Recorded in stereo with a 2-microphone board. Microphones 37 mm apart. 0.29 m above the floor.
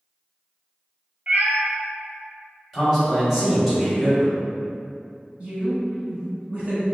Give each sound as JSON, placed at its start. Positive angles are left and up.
{"t": 1.3, "sound": "a cat meowing", "side_deg": -50, "distance_m": 0.8}
{"t": 2.7, "sound": "a man speaking", "side_deg": 0, "distance_m": 1.0}
{"t": 5.4, "sound": "a woman speaking", "side_deg": -35, "distance_m": 1.3}